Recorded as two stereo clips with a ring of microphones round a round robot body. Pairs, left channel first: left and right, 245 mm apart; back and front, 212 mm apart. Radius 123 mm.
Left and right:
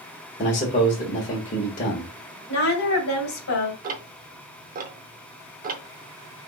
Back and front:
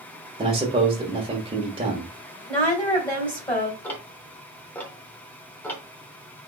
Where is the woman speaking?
115° left, 2 m.